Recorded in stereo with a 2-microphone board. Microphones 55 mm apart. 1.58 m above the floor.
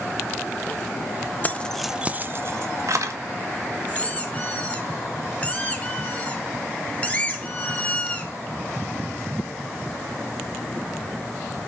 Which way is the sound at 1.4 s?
30° left (ahead or behind).